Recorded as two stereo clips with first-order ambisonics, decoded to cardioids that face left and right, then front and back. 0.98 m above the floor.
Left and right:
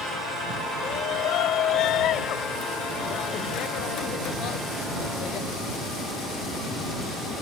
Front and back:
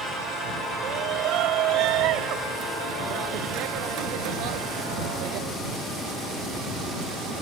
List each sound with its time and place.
0.8 s a shout: 135° left; by 5.5 s 145° left